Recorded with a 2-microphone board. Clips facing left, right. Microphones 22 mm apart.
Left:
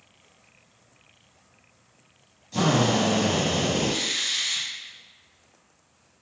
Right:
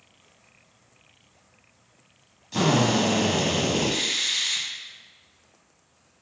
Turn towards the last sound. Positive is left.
turn(degrees=-30)  # may be behind; listen again after turning